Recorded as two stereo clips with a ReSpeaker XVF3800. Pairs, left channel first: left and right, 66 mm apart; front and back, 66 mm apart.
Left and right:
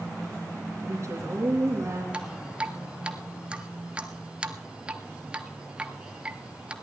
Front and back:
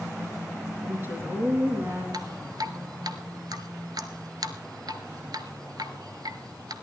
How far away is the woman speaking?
About 3 m.